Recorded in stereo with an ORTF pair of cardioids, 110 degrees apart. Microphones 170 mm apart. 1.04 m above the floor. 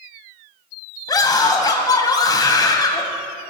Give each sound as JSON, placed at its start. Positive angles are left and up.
{"t": 1.1, "sound": "a scream", "azimuth_deg": 20, "distance_m": 6.0}